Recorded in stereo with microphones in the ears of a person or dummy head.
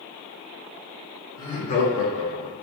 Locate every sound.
1.4 s laughter: 25° left (ahead or behind), 1.0 m; by 2.5 s 50° left (ahead or behind), 0.9 m